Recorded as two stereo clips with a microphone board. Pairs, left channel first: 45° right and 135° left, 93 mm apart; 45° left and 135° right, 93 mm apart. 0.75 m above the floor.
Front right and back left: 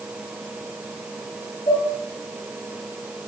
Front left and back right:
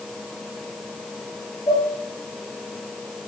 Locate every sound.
1.7 s dishes clattering: straight ahead, 9 m